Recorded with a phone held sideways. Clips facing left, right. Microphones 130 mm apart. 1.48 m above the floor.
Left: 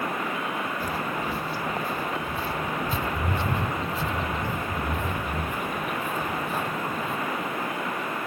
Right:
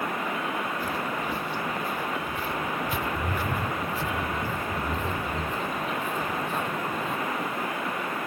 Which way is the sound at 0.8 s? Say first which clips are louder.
Left 1 dB; 40° left (ahead or behind).